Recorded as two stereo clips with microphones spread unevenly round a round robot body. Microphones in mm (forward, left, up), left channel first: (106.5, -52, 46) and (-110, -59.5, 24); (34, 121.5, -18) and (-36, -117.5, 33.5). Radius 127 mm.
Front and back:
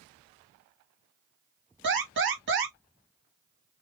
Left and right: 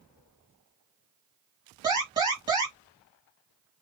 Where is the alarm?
175° left, 2.5 m.